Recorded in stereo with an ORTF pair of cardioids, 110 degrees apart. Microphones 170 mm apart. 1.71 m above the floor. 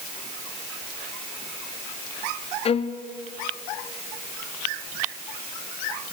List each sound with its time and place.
2.6 s a violin: 35° left, 1.1 m